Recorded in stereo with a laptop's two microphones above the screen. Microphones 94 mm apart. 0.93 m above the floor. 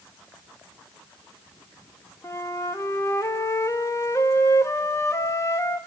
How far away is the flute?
About 1.7 m.